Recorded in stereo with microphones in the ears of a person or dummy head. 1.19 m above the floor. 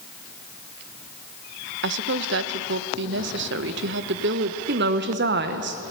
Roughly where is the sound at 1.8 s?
Right.